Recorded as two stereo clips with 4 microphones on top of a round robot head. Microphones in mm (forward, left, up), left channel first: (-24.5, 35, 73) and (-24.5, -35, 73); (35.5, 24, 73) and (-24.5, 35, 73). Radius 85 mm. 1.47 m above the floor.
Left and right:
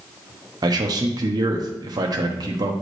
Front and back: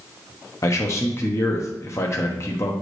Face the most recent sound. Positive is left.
turn(degrees=-60)